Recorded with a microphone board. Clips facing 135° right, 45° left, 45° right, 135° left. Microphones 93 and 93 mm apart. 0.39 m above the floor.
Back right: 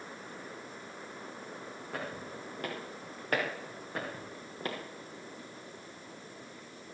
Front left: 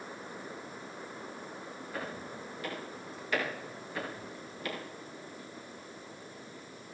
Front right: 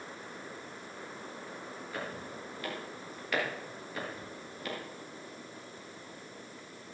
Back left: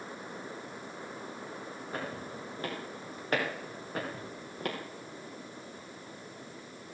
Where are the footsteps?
170° right, 9.5 m; by 4.8 s 170° left, 6 m.